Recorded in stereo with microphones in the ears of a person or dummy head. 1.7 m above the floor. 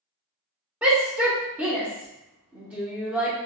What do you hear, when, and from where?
0.8 s a shout: 10° right (ahead or behind), 0.9 m